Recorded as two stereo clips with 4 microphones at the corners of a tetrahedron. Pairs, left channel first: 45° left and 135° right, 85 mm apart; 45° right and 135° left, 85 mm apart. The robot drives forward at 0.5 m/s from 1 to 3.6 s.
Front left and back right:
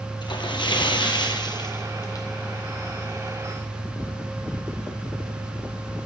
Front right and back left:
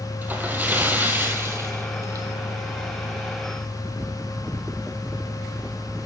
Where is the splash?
70° left, 1.5 m; by 2.2 s 90° left, 1.4 m.